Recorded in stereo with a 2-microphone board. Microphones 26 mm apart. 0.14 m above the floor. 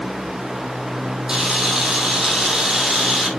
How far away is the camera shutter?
About 3.5 m.